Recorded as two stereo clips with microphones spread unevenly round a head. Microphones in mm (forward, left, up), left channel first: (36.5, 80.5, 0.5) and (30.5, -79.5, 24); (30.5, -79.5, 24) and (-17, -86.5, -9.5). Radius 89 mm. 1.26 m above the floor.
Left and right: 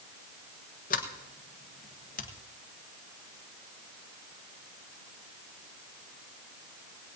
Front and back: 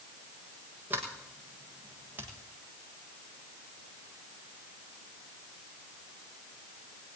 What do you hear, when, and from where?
0.9 s a sliding door: 130° left, 1.4 m